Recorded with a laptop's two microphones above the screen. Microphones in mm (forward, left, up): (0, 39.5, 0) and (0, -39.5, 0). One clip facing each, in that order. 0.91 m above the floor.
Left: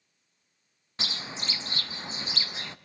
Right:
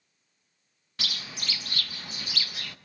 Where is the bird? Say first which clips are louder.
Left 2 dB; 25° left (ahead or behind), 0.5 m.